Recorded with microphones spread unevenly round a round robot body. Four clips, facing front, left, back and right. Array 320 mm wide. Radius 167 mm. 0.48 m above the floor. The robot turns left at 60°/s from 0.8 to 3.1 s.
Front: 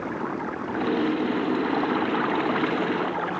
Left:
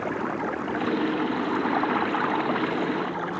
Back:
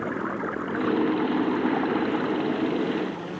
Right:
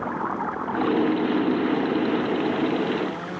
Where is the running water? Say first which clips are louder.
Right 1 dB, even; 145° left; by 3.4 s 10° left.